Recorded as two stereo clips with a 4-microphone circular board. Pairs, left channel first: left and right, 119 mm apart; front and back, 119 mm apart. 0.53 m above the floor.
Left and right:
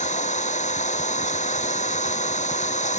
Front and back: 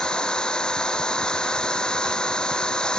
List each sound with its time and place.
0.0 s an engine running: 85° left